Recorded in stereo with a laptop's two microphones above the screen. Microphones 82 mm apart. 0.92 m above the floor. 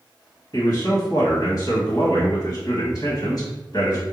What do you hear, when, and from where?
0.5 s a man speaking: 40° left (ahead or behind), 1.3 m